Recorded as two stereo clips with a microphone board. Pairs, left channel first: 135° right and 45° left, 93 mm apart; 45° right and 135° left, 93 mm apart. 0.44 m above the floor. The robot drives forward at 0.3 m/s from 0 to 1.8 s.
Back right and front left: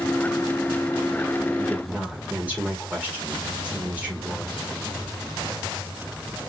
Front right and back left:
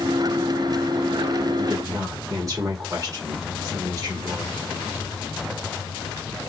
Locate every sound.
1.6 s a woman speaking: 105° left, 1.4 m; by 4.6 s 110° left, 1.5 m